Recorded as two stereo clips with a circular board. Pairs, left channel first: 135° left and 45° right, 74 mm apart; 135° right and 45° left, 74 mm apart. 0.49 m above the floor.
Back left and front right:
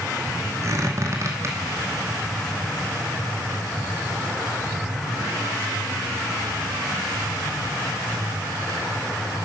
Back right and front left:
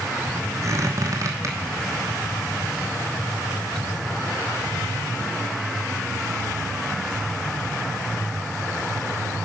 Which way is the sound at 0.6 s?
5° left.